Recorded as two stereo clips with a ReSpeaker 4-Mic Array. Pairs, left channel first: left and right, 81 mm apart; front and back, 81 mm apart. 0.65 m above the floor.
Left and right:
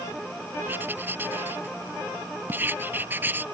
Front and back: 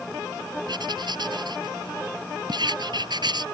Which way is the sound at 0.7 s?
155° right.